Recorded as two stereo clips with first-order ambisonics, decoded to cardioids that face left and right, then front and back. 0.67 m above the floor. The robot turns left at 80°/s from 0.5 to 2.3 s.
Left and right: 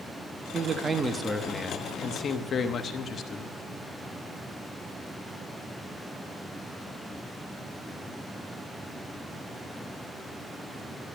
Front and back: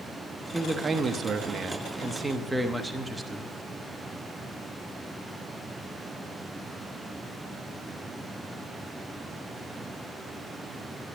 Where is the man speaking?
115° right, 0.7 m; by 3.6 s 105° left, 0.7 m.